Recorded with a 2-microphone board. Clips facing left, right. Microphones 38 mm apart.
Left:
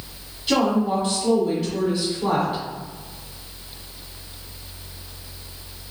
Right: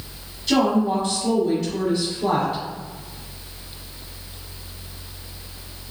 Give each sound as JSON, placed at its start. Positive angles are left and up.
{"t": 0.5, "sound": "a woman speaking", "side_deg": 15, "distance_m": 1.3}